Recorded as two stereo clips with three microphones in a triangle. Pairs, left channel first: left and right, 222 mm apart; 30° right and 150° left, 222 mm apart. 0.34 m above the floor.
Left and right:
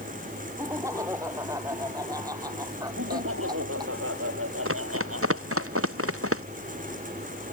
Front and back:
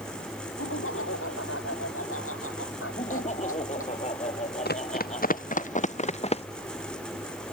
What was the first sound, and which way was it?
Laughter, 15° right.